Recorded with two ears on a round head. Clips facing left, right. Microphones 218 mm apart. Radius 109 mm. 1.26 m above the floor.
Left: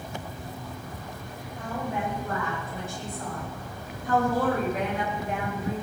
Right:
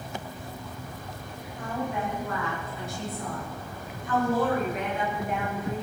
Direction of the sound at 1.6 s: 55° left (ahead or behind).